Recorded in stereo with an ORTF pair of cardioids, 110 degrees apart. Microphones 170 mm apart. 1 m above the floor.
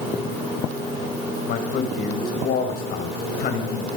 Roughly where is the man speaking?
Ahead left.